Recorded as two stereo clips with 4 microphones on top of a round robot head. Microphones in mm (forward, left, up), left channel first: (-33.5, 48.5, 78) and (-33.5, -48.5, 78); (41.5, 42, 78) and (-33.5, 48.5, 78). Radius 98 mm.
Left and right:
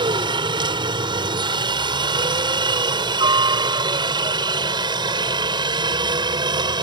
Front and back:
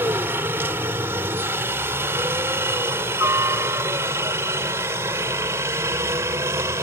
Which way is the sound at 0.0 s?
125° right.